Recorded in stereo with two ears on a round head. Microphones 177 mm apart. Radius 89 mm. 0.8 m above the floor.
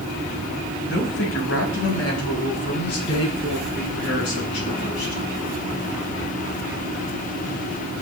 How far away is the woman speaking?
About 5 m.